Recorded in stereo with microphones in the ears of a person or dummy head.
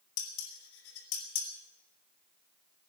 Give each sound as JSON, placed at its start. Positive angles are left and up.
{"t": 0.2, "sound": "dishes clattering", "side_deg": 80, "distance_m": 3.5}